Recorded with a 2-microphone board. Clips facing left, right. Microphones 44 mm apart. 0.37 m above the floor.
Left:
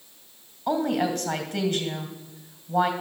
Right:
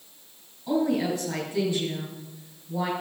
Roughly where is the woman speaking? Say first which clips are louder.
Even; left.